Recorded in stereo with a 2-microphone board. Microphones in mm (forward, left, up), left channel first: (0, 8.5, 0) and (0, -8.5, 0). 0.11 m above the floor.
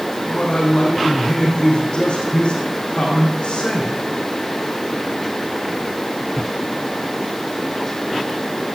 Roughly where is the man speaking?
Left.